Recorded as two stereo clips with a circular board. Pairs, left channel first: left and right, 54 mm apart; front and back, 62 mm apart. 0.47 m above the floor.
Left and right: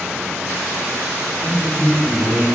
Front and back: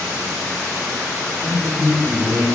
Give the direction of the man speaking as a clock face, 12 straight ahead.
7 o'clock.